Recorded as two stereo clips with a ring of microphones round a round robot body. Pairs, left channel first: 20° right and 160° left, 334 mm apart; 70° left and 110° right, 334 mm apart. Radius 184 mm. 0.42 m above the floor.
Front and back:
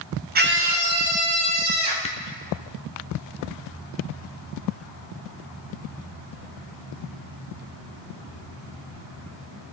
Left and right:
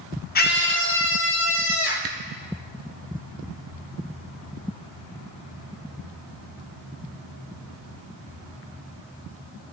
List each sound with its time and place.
0.3 s a scream: 115° left, 0.9 m; by 1.9 s 120° left, 3 m
2.0 s a camera shutter: 85° right, 0.9 m